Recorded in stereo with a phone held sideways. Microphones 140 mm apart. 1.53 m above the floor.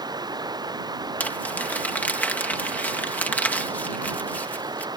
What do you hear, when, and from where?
0.0 s running water: 30° right (ahead or behind)
1.2 s crumpling: 10° left (ahead or behind)